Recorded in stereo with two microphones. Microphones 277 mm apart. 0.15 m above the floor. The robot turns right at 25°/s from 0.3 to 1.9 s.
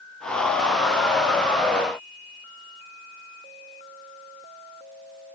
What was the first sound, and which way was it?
Only background noise.